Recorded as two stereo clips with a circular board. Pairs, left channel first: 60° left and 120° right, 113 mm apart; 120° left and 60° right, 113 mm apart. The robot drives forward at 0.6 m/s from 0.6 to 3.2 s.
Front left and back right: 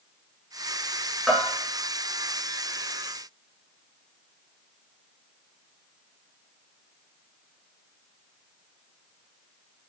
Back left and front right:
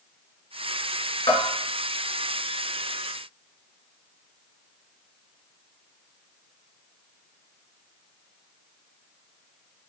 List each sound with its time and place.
1.3 s a bell: 150° left, 3.5 m